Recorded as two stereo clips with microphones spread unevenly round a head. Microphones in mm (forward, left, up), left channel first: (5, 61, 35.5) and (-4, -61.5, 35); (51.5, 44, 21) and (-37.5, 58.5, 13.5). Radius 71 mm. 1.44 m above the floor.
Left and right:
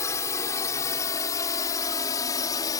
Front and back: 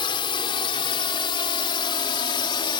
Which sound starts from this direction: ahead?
A drone, at 0.0 s.